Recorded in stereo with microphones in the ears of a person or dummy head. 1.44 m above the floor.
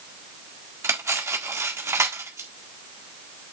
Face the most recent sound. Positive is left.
turn(degrees=-20)  # may be behind; listen again after turning